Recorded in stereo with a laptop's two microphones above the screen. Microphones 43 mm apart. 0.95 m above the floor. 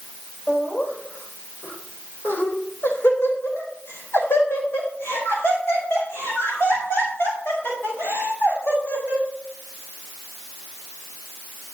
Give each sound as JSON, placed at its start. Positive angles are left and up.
{"t": 0.5, "sound": "laughter", "side_deg": 45, "distance_m": 4.5}